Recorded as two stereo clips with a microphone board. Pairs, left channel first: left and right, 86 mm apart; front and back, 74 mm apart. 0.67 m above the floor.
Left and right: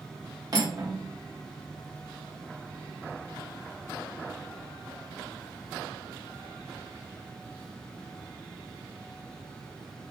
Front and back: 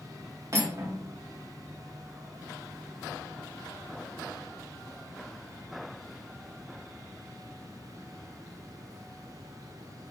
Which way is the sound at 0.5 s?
135° right.